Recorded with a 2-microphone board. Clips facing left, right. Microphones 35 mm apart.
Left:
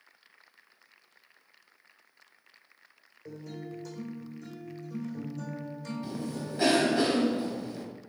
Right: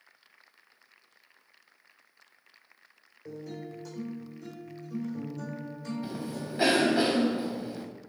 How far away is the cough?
About 0.9 m.